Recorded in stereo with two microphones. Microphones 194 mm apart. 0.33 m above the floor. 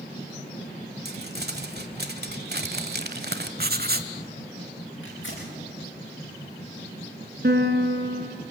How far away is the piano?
About 2.5 m.